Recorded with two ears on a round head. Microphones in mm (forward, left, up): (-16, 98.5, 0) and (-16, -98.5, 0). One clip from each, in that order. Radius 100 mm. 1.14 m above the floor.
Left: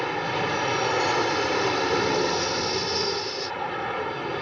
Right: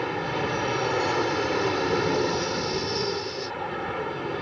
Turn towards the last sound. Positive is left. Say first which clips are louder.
# left 2 dB
turn(degrees=30)  # may be behind; listen again after turning